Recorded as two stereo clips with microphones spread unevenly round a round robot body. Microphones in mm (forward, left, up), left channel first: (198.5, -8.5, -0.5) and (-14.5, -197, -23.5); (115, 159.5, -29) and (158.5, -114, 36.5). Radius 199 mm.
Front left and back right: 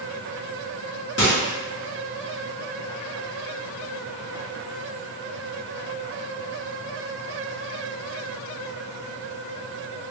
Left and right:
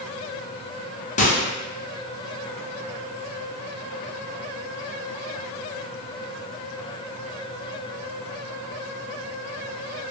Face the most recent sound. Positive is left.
turn(degrees=75)